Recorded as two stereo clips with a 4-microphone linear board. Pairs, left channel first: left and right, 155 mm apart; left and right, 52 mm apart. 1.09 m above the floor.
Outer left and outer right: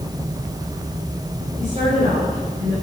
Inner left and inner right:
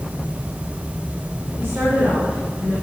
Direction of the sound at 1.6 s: 40° right (ahead or behind).